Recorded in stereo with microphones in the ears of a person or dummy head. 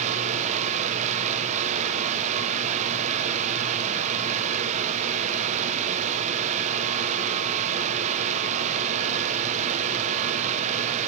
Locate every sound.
0.0 s a fan: 40° right (ahead or behind), 1.3 m